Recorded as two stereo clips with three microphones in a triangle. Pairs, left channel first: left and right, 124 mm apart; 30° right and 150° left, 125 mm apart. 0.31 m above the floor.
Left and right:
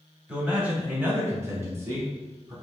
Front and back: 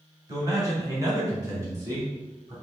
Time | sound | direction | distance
0.3 | a man speaking | 170° right | 1.8 m